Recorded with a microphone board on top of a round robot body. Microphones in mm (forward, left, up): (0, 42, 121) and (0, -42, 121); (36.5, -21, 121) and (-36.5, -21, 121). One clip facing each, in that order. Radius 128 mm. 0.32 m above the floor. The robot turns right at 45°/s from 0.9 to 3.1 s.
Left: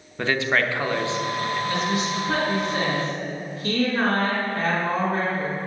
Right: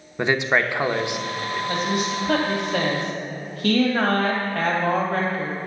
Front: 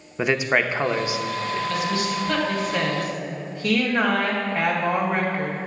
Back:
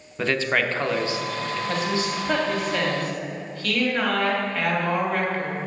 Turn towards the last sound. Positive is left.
turn(degrees=-70)